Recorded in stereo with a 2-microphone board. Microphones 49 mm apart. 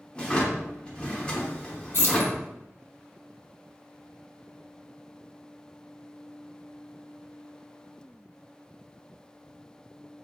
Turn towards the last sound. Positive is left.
turn(degrees=55)  # may be behind; listen again after turning